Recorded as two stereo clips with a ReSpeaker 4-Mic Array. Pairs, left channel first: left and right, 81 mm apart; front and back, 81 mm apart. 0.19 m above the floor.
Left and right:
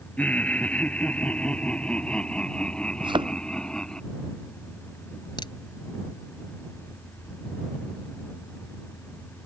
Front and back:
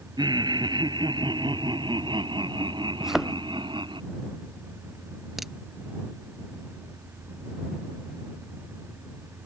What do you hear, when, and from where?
0.2 s laughter: 160° left; by 4.0 s 170° left
3.0 s a thud: 95° right
5.4 s a crack: 95° left